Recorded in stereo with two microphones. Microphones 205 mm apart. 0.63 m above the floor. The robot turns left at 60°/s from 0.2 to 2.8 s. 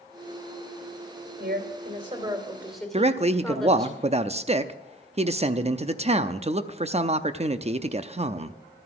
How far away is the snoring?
I don't hear snoring.